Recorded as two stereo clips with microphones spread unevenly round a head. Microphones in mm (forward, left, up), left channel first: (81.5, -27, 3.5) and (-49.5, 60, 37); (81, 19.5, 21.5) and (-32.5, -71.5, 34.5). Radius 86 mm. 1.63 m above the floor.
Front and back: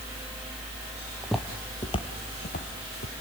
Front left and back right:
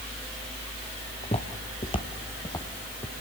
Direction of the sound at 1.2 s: 80° left.